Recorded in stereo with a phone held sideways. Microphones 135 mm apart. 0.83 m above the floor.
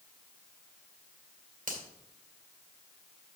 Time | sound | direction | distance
1.7 | a finger snap | 85° right | 2 m